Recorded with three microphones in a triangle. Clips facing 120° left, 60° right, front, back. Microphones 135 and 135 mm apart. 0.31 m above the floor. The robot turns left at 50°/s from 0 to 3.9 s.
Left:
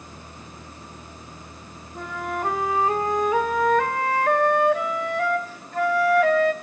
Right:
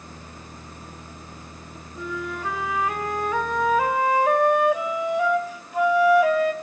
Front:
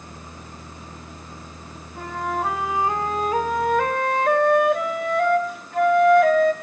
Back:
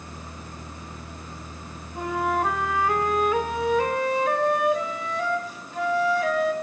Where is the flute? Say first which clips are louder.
Left 2 dB, back 2 dB; 115° left, 1.5 m; by 6.5 s 15° left, 1.5 m.